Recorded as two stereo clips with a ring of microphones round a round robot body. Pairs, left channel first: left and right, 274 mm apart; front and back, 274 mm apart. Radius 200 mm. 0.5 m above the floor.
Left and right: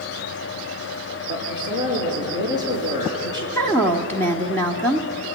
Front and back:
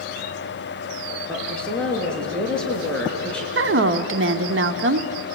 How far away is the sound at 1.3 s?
About 7.5 m.